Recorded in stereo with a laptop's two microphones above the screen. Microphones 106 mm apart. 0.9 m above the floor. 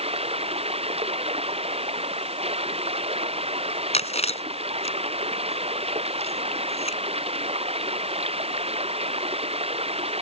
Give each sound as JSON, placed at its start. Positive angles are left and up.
{"t": 0.0, "sound": "running water", "side_deg": -70}
{"t": 3.9, "sound": "chewing", "side_deg": 80}